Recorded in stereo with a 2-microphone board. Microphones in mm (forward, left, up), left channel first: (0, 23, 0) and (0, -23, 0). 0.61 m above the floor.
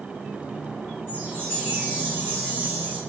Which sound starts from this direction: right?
A chime, at 1.1 s.